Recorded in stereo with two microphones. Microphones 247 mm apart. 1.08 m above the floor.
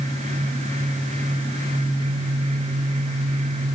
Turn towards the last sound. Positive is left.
No sound to turn to.